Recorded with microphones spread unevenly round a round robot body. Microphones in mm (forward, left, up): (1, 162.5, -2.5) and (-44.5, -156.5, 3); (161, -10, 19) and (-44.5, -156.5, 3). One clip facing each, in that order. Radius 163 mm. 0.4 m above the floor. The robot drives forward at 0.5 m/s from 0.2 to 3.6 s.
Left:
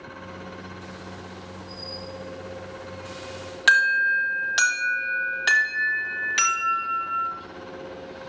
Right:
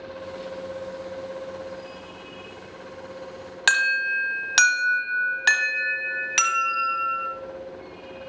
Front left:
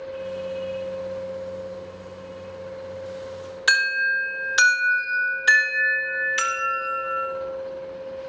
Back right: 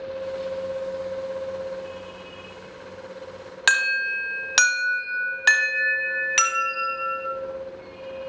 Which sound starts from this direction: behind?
An alarm, at 3.7 s.